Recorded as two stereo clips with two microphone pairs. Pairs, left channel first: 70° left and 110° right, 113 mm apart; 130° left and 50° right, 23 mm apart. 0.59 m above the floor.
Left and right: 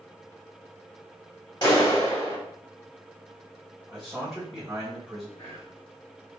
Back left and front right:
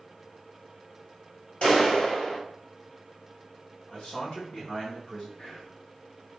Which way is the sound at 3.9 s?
175° left.